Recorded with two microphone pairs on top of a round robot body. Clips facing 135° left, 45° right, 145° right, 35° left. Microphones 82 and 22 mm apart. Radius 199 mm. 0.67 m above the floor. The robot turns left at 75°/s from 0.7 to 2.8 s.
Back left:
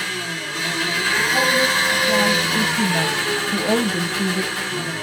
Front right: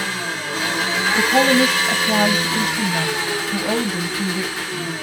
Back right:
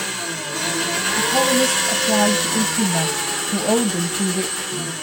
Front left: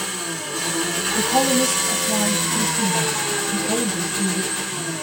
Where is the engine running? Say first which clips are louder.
Front right 2 dB, back right 2 dB; 90° right, 1.3 m; by 5.0 s 115° left, 1.3 m.